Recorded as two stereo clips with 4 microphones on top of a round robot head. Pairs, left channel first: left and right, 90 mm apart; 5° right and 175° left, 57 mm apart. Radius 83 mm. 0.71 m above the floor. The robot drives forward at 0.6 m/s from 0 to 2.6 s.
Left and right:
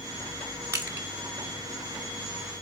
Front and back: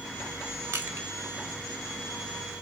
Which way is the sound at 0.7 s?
145° right.